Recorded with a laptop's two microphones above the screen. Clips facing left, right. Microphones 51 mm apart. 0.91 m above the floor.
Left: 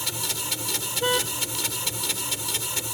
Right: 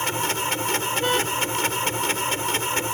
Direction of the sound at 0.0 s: 45° right (ahead or behind).